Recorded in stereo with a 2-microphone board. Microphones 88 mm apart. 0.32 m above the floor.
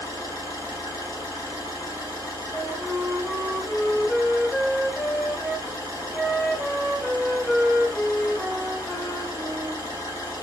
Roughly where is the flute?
Centre.